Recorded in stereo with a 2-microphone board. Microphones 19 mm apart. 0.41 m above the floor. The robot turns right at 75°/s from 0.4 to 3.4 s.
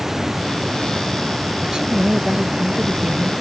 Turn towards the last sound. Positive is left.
turn(degrees=-10)